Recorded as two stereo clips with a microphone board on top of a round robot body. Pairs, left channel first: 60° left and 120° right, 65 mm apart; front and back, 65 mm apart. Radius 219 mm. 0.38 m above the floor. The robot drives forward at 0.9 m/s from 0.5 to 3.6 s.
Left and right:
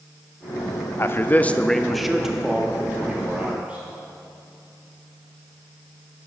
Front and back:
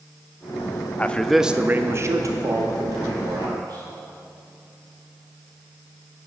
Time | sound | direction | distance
1.0 | a man speaking | 50° left | 0.9 m